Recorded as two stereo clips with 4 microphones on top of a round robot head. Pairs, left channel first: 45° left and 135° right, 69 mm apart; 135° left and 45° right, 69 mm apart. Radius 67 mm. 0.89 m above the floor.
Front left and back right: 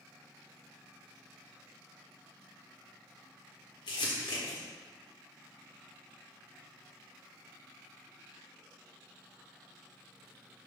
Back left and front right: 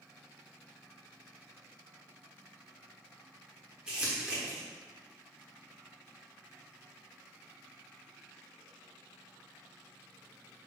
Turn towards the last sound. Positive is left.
turn(degrees=35)